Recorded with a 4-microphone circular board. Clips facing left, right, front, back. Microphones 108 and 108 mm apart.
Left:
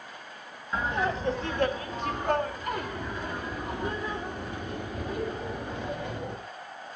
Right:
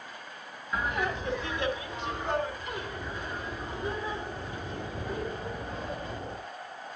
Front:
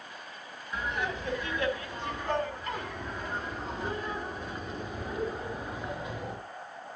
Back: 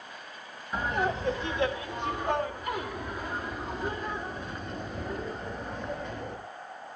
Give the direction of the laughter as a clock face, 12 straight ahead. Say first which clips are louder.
Left 2 dB, back 5 dB; 7 o'clock.